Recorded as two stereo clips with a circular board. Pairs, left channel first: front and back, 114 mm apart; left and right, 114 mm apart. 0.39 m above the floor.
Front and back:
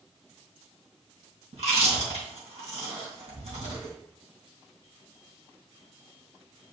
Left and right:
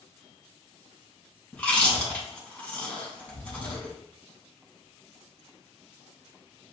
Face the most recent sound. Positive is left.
turn(degrees=170)